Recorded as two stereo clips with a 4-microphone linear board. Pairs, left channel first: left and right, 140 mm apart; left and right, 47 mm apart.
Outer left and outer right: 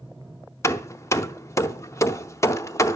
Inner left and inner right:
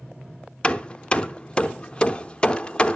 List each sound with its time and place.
0.6 s hammering: 20° left (ahead or behind), 0.6 m